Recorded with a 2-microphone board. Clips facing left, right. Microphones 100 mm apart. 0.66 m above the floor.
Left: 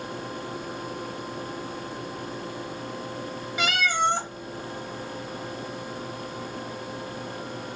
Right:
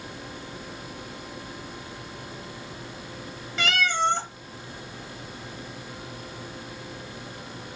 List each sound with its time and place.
3.6 s a cat meowing: 10° left (ahead or behind), 0.7 m